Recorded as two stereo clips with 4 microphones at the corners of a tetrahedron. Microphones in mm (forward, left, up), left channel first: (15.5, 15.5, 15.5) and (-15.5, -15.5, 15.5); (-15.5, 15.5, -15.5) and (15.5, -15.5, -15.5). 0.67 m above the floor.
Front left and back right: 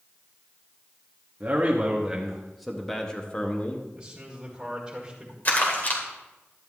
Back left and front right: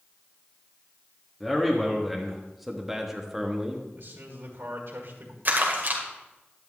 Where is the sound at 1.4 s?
145° right, 1.3 m; by 3.9 s 25° left, 1.3 m.